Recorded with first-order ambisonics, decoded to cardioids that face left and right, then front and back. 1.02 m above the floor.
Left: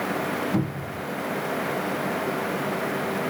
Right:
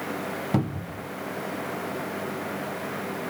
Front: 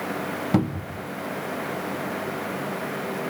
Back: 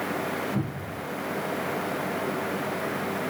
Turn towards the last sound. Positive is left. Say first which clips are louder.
# left 1 dB, front 6 dB
turn(degrees=-15)